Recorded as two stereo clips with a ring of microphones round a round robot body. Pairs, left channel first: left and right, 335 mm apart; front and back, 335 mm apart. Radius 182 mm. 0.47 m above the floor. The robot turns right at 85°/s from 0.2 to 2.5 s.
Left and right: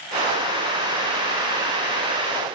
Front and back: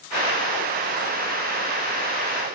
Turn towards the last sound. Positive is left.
No sound to turn to.